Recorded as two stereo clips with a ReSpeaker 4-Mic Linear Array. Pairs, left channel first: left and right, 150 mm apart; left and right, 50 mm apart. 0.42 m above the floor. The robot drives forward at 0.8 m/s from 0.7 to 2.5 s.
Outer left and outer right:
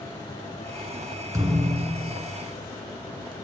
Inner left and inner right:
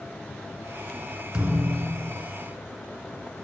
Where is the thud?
20° right (ahead or behind), 2 m; by 2.1 s 30° right (ahead or behind), 1.7 m.